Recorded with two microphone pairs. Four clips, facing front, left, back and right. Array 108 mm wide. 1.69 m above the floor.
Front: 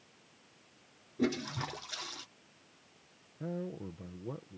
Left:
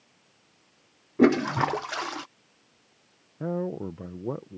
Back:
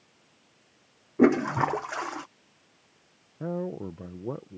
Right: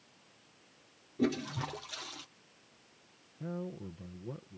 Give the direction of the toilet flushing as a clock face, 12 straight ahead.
8 o'clock.